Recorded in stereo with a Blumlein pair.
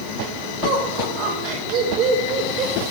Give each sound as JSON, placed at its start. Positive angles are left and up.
{"t": 0.6, "sound": "laughter", "azimuth_deg": -40, "distance_m": 7.0}